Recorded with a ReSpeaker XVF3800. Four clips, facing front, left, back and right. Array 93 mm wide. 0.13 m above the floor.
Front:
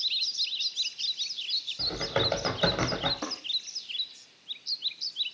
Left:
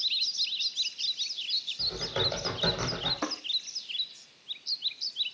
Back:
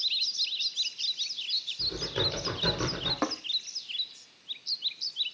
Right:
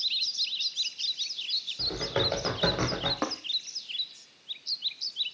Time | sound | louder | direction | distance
1.8 | typing on a keyboard | right 3 dB, front 4 dB | 40° right | 6 m
3.2 | tapping | right 1 dB, back 6 dB | 140° right | 3.5 m